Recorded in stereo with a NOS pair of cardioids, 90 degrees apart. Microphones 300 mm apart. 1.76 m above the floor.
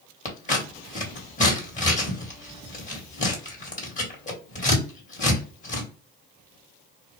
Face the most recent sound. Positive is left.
turn(degrees=25)